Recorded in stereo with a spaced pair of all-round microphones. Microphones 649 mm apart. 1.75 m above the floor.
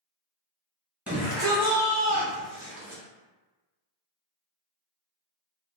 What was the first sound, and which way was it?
A shout, centre (ahead or behind).